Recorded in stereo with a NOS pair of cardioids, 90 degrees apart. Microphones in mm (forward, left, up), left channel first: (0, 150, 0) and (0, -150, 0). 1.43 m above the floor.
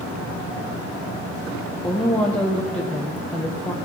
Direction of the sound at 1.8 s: 5° left.